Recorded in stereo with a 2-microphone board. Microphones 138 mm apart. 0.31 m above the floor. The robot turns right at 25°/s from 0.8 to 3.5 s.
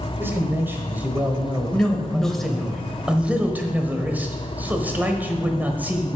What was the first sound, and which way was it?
A man speaking, 30° right.